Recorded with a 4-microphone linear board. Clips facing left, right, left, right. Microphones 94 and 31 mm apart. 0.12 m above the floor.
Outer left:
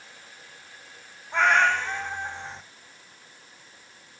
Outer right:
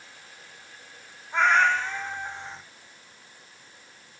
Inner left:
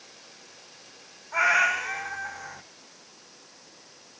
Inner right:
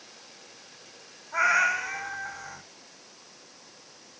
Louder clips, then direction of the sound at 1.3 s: Even, inner left 1 dB; 70° left (ahead or behind).